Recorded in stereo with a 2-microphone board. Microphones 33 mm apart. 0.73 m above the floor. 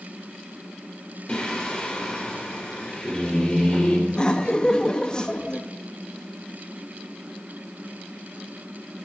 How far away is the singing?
About 3.5 m.